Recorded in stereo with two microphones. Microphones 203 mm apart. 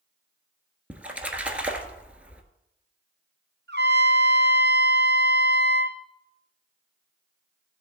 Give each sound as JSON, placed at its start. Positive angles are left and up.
{"t": 0.9, "sound": "a splash", "side_deg": -5, "distance_m": 1.2}
{"t": 3.7, "sound": "a trumpet", "side_deg": -55, "distance_m": 1.4}